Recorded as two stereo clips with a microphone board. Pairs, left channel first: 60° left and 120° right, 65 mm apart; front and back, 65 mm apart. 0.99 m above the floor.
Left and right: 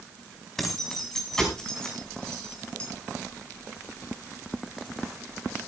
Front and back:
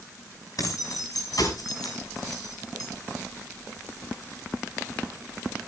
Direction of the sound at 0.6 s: 25° right.